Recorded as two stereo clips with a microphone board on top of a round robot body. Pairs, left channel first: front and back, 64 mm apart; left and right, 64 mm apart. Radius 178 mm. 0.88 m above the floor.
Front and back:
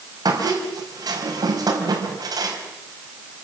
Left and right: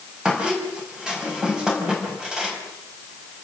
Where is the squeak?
170° right, 4.5 m.